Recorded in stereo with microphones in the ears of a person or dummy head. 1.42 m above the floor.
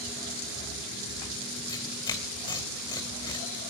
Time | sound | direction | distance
1.7 | tearing paper | 20° left (ahead or behind) | 2.5 m